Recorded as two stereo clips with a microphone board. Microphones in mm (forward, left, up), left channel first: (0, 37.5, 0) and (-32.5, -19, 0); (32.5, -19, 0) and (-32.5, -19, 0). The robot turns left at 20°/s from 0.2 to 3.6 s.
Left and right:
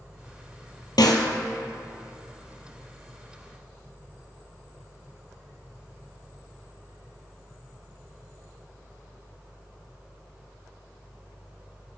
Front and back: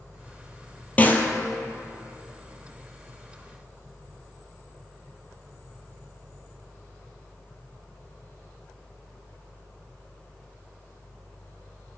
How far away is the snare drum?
About 1.1 m.